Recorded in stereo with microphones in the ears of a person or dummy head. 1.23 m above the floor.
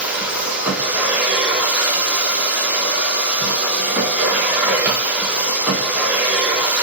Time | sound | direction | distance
0.0 | a machine running | 10° right (ahead or behind) | 1.0 m